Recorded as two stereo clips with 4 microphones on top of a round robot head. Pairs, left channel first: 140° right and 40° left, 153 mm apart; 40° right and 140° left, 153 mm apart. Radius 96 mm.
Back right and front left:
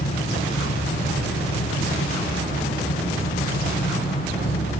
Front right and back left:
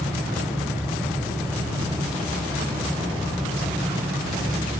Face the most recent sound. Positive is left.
turn(degrees=-150)